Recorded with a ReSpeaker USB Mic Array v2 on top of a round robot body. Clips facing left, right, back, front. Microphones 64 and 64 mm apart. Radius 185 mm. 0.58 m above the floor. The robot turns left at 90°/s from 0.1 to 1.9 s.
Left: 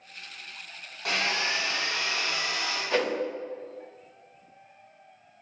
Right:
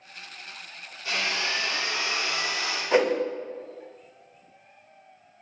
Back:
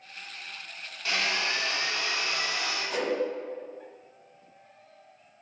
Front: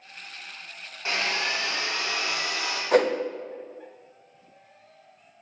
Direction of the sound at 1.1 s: 65° left.